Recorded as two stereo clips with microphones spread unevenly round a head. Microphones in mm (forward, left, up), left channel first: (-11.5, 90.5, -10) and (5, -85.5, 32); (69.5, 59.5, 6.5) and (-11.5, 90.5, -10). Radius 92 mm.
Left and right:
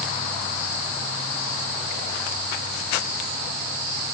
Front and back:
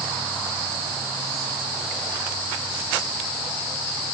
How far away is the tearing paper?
I don't hear tearing paper.